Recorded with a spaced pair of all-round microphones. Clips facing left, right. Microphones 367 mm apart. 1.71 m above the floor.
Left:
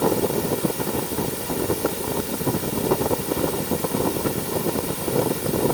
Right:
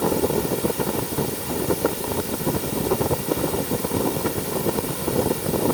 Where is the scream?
No scream in this recording.